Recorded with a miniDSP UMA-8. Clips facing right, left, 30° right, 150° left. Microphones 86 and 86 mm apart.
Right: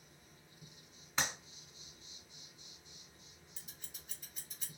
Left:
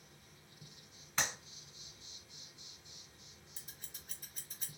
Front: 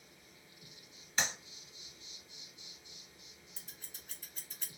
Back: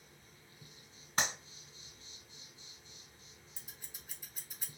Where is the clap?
170° right, 1.9 m.